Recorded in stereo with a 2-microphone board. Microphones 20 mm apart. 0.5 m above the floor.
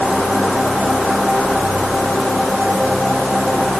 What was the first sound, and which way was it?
Only background noise.